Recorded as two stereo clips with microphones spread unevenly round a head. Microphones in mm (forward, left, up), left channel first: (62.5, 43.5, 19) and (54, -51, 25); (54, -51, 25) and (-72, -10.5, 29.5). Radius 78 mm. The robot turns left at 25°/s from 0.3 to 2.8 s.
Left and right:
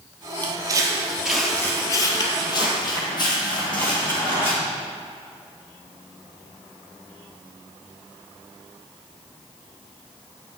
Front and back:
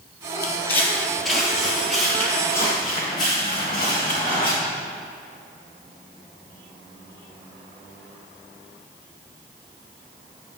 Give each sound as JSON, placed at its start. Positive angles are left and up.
{"t": 0.4, "sound": "footsteps", "azimuth_deg": -75, "distance_m": 1.6}